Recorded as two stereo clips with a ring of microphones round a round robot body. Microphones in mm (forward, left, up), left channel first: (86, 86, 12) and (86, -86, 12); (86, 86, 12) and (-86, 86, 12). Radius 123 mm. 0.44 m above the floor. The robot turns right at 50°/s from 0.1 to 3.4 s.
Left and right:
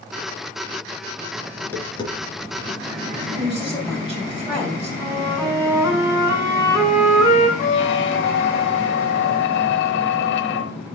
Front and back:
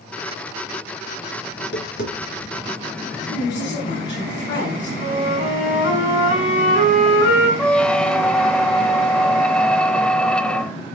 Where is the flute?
15° right, 4.5 m.